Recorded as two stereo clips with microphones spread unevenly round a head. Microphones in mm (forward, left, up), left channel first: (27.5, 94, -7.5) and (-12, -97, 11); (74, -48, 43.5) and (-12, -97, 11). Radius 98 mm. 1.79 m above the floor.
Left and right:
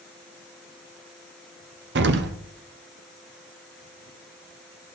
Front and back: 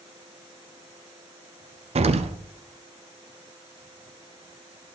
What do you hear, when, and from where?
1.9 s an explosion: 125° right, 0.7 m